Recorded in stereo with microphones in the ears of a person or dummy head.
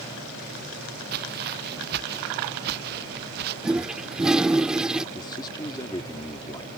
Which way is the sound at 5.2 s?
20° left (ahead or behind).